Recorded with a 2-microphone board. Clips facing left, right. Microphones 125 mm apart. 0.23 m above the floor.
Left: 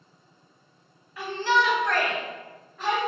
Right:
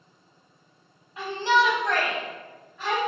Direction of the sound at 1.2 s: 25° right (ahead or behind).